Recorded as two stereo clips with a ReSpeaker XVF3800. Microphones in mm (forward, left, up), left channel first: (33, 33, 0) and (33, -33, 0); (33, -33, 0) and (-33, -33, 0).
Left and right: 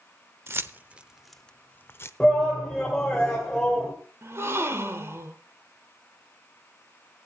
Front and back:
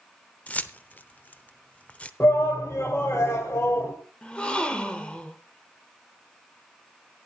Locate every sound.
0.5 s keys jangling: 60° right, 0.7 m; by 2.1 s 60° left, 0.7 m
2.2 s a shout: 10° left, 1.8 m
4.2 s a gasp: 70° right, 1.2 m